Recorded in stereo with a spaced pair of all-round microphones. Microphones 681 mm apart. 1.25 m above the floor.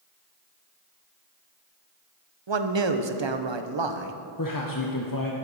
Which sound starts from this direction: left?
A man speaking, at 4.4 s.